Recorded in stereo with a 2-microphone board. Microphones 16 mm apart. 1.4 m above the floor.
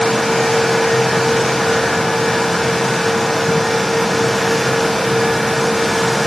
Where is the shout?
No shout in this recording.